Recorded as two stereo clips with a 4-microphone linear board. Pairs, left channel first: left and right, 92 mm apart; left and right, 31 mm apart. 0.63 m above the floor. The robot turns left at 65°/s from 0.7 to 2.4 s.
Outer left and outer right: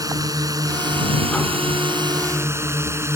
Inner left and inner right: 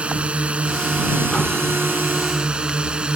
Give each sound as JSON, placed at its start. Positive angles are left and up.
{"t": 0.0, "sound": "a drone", "azimuth_deg": -40}